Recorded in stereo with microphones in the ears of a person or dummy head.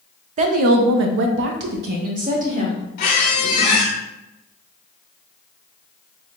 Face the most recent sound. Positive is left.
turn(degrees=30)  # may be behind; listen again after turning